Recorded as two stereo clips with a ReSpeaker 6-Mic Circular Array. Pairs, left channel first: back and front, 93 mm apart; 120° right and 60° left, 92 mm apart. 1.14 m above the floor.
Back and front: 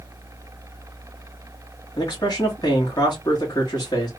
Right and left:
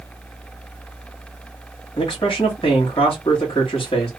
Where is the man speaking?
135° right, 1.8 m.